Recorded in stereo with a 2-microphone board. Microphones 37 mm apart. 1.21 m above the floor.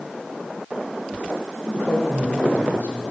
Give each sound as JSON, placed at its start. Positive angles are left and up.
{"t": 1.6, "sound": "a man speaking", "side_deg": 70, "distance_m": 3.5}